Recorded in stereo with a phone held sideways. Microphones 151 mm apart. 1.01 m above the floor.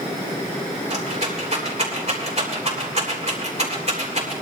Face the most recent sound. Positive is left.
turn(degrees=-45)  # may be behind; listen again after turning